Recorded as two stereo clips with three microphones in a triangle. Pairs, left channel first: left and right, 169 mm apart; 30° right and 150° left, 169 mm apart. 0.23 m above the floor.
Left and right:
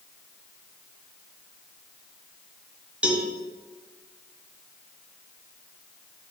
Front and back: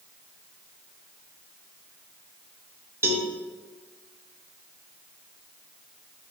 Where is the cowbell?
160° right, 1.1 m.